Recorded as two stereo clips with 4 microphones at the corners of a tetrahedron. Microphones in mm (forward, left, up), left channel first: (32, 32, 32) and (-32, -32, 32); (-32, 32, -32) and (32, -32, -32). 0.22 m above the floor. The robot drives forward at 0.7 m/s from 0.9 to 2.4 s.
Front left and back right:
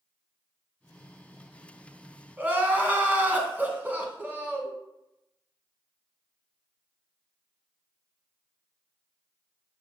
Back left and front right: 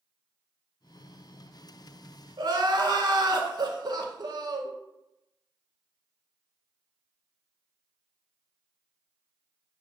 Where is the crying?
65° right, 0.5 m.